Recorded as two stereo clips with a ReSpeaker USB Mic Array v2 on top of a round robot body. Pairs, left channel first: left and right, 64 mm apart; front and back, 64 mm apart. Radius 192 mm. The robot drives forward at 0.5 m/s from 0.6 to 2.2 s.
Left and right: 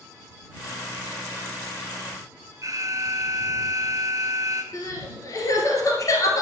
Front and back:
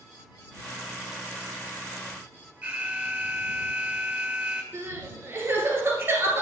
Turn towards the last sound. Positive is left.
turn(degrees=125)